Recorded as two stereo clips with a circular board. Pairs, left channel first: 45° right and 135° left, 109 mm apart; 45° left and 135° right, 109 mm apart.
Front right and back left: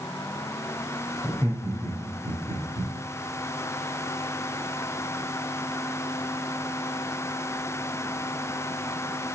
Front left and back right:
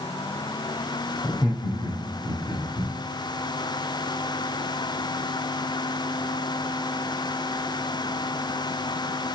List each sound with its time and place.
1.2 s laughter: 95° left, 3 m; by 2.9 s 125° left, 3 m